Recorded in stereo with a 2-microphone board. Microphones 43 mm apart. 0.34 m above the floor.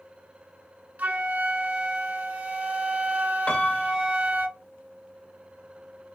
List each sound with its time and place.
1.0 s a flute: 40° right (ahead or behind), 0.9 m
3.5 s a piano: 25° left (ahead or behind), 0.8 m